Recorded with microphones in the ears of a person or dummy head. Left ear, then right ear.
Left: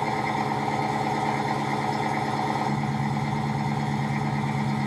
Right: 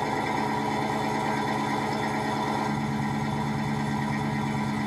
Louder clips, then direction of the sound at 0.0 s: Left 1 dB; 5° right (ahead or behind).